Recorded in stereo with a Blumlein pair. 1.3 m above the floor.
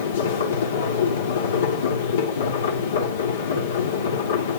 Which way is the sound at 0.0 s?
60° left.